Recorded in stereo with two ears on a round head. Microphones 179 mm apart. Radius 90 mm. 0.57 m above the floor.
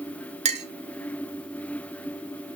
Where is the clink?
35° right (ahead or behind), 1.3 m.